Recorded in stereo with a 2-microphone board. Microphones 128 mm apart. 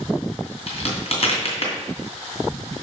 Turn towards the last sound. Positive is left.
turn(degrees=55)  # may be behind; listen again after turning